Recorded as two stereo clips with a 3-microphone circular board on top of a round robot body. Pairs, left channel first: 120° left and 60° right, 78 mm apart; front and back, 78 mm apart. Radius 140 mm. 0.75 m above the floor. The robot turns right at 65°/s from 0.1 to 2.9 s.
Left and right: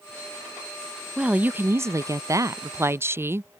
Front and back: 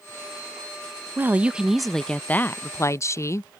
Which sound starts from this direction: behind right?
A woman speaking, at 1.2 s.